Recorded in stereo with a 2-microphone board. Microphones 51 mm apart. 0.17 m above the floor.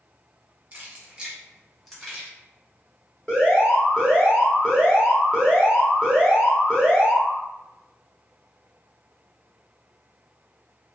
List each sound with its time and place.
0.7 s keys jangling: 35° right (ahead or behind), 1.0 m; by 2.3 s 15° left (ahead or behind), 1.2 m
3.3 s an alarm: 20° left (ahead or behind), 1.5 m